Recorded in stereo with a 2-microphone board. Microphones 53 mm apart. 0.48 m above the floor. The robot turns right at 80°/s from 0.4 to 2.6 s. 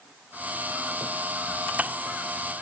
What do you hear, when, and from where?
Only background noise.